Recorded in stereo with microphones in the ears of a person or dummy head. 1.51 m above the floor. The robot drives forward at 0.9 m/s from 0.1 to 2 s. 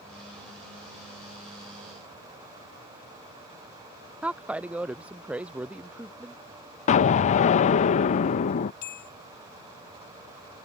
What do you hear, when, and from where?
4.2 s a woman speaking: 5° right (ahead or behind)
6.9 s an explosion: 40° left (ahead or behind)
8.8 s a bell: 60° left (ahead or behind)